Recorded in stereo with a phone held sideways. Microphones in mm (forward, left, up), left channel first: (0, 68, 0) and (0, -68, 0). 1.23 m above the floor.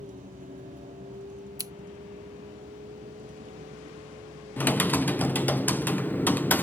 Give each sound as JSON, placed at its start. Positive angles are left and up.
{"t": 0.0, "sound": "a vehicle", "side_deg": -75}
{"t": 1.6, "sound": "scissors", "side_deg": -25}
{"t": 4.6, "sound": "typing on a keyboard", "side_deg": 15}